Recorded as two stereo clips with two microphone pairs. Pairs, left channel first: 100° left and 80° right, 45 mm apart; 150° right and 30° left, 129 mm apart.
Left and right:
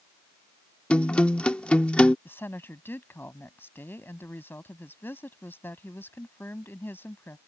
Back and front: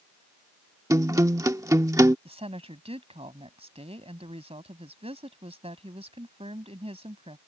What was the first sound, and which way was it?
A guitar, 65° left.